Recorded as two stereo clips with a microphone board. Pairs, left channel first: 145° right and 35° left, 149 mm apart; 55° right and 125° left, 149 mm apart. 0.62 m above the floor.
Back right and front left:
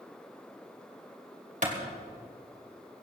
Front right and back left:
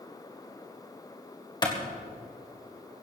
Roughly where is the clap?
Ahead.